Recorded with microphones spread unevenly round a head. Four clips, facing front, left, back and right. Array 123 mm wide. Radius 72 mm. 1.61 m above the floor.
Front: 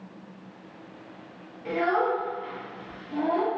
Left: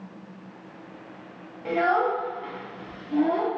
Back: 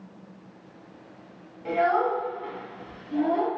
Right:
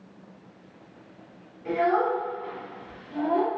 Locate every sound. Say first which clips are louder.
1.6 s a child speaking: left 1 dB, back 2 dB; 125° left, 1.1 m; by 3.5 s 105° left, 2 m